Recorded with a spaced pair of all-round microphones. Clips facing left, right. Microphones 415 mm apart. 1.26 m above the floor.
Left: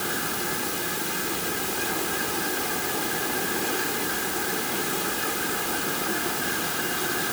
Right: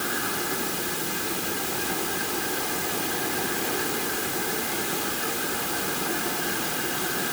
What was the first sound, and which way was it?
Only background noise.